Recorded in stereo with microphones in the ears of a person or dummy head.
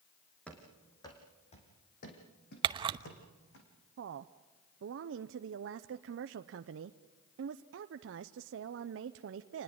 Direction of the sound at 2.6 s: 30° right (ahead or behind).